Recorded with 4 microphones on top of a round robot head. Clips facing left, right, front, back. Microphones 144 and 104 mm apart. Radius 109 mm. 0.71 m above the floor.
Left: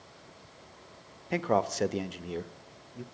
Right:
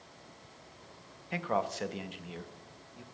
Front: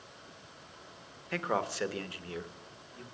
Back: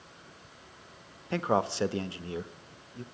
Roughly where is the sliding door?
No sliding door in this recording.